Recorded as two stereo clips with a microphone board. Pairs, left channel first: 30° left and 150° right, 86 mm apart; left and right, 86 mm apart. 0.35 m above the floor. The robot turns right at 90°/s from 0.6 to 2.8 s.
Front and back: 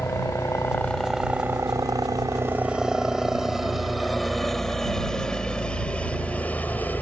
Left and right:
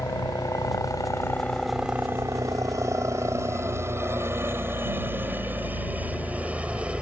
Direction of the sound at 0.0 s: 70° left.